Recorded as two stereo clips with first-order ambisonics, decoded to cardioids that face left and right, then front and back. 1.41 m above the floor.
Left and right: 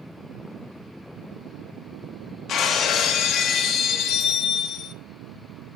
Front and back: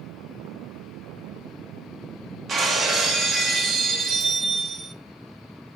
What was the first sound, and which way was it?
Breaking glass, 125° left.